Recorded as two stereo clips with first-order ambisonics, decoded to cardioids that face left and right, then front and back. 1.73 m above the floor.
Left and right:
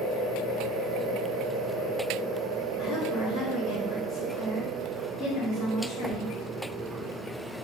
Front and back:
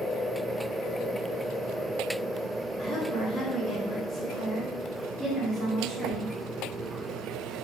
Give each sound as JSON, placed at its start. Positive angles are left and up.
{"t": 2.8, "sound": "a woman speaking", "azimuth_deg": 60, "distance_m": 1.1}